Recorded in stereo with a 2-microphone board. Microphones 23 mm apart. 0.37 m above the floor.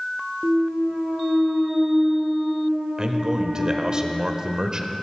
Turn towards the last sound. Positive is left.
turn(degrees=-35)  # may be behind; listen again after turning